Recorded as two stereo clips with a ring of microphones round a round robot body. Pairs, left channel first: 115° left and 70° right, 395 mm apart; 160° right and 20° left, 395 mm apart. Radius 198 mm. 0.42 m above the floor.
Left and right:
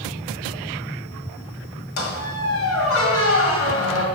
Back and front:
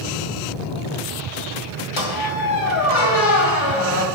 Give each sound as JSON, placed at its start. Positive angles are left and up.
{"t": 2.0, "sound": "a squeak", "azimuth_deg": 160, "distance_m": 1.9}